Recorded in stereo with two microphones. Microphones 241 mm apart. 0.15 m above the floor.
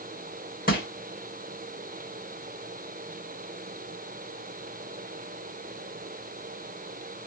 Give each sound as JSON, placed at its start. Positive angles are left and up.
{"t": 0.7, "sound": "crushing", "side_deg": 35, "distance_m": 1.7}